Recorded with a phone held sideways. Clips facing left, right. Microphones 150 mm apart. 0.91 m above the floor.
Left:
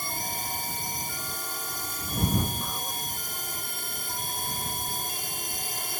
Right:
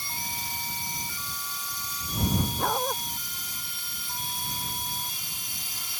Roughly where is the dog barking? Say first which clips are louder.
Right 9 dB; right.